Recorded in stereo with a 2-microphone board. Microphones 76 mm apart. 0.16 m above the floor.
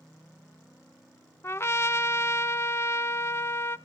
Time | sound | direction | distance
1.4 | a trumpet | 35° left (ahead or behind) | 0.5 m